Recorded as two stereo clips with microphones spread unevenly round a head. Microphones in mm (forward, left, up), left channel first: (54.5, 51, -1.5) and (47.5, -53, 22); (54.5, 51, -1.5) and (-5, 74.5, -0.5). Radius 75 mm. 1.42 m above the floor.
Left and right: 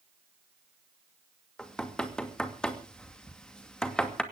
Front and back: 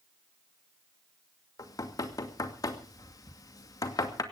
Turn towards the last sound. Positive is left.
turn(degrees=5)